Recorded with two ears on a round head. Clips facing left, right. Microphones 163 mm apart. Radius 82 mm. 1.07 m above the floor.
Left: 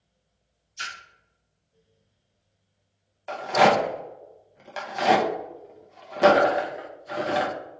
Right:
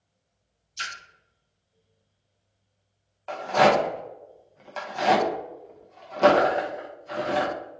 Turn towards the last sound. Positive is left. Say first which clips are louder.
# even
turn(degrees=10)  # may be behind; listen again after turning